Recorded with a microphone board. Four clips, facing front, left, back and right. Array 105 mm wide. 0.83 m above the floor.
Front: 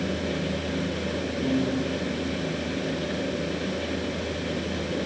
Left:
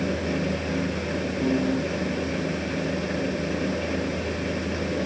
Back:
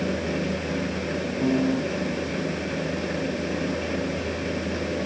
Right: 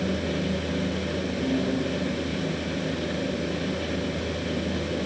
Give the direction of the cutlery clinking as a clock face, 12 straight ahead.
No cutlery clinking in this recording.